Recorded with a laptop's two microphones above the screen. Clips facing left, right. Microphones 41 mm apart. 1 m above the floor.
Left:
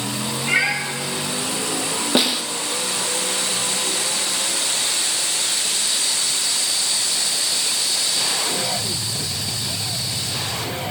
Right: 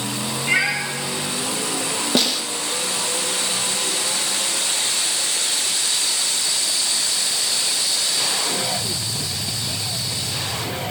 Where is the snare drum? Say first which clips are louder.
Left 2 dB; 20° left (ahead or behind), 0.6 m.